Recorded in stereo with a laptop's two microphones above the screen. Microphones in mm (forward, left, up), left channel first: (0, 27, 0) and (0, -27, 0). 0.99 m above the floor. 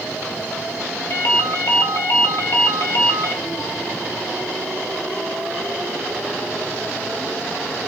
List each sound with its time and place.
1.1 s a ringtone: 50° left (ahead or behind), 1.0 m